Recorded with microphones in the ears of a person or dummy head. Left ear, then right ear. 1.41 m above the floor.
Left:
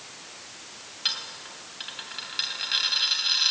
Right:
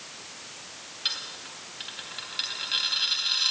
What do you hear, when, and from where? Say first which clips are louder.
1.1 s a dropped coin: left 2 dB; 10° left (ahead or behind), 3 m